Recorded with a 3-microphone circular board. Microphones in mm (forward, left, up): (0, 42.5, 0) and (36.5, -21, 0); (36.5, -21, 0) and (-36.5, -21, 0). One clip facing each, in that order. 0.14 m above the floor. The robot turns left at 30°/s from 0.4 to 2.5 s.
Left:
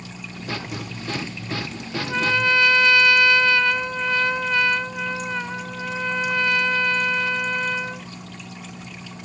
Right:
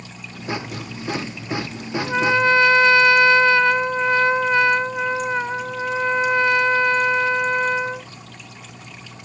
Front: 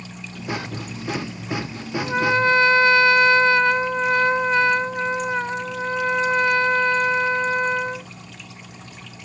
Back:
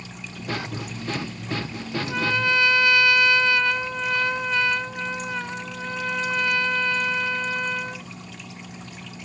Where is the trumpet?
5° right; by 8.1 s 20° right.